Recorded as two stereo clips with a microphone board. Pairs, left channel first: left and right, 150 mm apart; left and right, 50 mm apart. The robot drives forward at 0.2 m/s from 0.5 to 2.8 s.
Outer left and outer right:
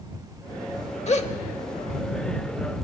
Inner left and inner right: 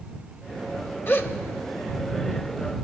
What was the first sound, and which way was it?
A gasp, 45° left (ahead or behind).